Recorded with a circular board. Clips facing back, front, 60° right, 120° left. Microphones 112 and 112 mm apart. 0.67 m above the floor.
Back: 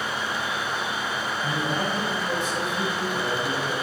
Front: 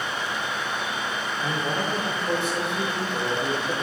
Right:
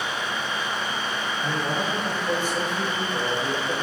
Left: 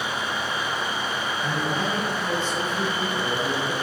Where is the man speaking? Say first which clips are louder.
Even, even; 15° left, 2 m.